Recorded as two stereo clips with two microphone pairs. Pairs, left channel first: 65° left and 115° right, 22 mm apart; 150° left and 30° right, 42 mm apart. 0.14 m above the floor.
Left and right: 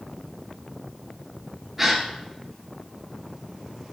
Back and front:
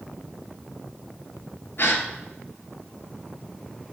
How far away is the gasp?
About 0.5 m.